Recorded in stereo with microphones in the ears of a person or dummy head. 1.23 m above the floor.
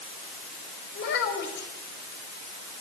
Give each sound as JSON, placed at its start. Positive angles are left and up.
{"t": 0.9, "sound": "a child speaking", "side_deg": 55, "distance_m": 5.0}